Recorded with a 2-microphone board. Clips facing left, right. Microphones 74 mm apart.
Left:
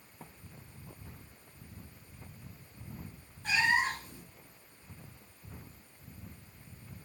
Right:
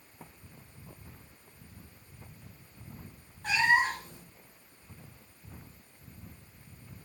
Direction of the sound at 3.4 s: 65° right (ahead or behind).